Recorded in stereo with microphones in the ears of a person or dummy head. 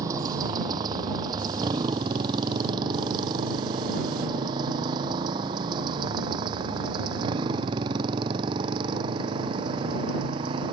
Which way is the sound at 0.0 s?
20° right (ahead or behind).